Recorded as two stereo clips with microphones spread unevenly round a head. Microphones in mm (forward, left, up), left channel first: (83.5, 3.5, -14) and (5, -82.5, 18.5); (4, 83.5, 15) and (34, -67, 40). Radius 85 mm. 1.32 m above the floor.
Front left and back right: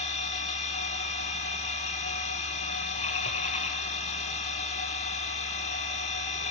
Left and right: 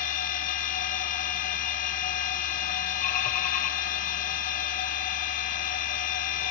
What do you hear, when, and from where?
0.0 s a machine running: 70° left, 0.9 m